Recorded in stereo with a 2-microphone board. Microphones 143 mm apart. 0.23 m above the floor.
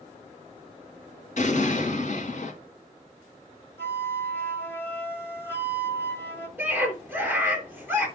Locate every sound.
1.4 s an explosion: 55° left (ahead or behind), 2.5 m
3.8 s a flute: 15° left (ahead or behind), 1.6 m
6.6 s a scream: 15° right (ahead or behind), 3.5 m